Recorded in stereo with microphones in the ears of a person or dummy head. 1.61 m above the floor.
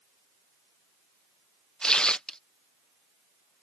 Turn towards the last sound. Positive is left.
turn(degrees=5)  # may be behind; listen again after turning